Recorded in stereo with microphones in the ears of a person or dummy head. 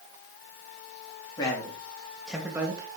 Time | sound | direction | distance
1.4 | a man speaking | 25° left (ahead or behind) | 3 m